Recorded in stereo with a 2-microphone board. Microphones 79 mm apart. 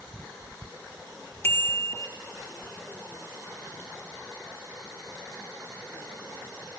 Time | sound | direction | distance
1.4 | a bicycle bell | 30° left (ahead or behind) | 2.5 m